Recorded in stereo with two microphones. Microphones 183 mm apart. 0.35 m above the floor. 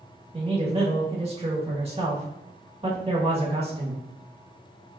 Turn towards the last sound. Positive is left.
turn(degrees=-30)  # may be behind; listen again after turning